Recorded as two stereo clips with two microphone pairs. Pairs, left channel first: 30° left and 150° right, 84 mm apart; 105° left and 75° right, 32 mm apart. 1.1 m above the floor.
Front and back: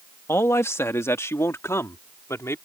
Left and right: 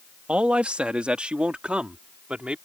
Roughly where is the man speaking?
Ahead right.